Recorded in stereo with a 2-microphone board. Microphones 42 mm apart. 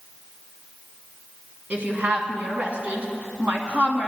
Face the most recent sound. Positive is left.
turn(degrees=-30)  # may be behind; listen again after turning